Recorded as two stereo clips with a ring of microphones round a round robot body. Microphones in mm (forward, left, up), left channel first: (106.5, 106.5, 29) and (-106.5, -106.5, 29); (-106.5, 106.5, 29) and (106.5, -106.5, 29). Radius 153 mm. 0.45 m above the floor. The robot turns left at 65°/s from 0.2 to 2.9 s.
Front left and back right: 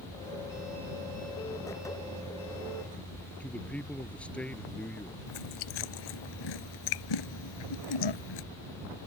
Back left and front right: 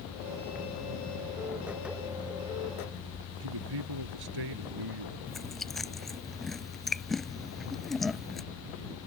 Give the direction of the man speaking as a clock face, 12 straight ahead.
1 o'clock.